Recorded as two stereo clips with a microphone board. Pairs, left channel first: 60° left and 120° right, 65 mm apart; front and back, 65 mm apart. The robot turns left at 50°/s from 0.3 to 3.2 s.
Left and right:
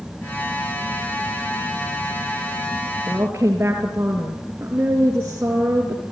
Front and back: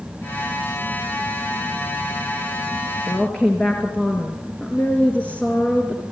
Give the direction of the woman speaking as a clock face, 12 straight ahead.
2 o'clock.